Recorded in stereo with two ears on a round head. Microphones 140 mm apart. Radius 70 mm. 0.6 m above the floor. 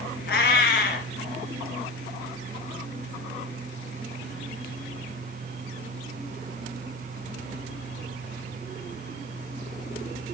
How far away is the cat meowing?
About 2.5 m.